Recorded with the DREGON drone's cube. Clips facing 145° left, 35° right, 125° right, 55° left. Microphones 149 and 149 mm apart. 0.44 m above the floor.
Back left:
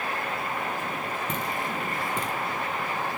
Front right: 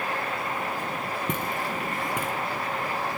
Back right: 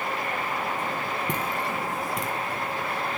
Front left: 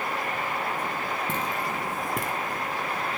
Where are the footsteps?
55° right, 0.8 m; by 2.3 s 50° left, 0.8 m.